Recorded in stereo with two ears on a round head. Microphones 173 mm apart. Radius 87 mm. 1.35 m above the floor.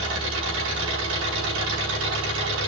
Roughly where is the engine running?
Right.